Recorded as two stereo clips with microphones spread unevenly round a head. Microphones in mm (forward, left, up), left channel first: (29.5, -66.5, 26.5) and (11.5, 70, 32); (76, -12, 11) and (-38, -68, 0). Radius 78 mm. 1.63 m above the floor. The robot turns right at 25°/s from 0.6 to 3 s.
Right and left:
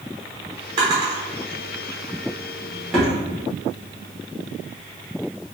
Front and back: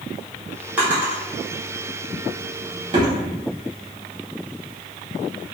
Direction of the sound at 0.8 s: 130° left.